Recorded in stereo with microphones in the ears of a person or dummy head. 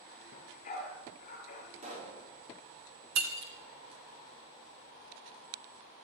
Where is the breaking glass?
60° right (ahead or behind), 1.9 m.